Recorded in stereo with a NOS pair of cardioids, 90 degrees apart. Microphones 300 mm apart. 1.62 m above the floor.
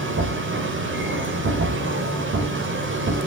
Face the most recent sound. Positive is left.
turn(degrees=-40)